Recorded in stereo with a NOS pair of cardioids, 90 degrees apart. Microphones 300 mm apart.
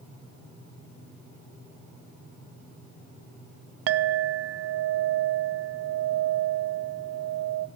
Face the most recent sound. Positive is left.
turn(degrees=-55)